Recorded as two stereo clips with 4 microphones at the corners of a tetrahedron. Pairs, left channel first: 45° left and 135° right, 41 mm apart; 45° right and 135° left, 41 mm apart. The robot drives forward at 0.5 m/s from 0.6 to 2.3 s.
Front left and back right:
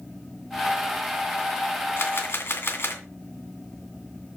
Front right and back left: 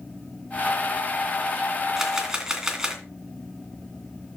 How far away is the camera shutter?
About 2 m.